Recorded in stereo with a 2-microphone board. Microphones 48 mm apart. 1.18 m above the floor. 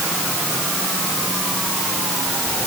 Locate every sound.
Only background noise.